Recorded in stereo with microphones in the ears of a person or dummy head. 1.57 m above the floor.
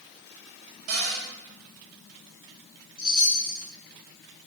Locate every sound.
0.9 s a cupboard door: 40° right (ahead or behind), 5 m
3.0 s a chime: 25° left (ahead or behind), 4 m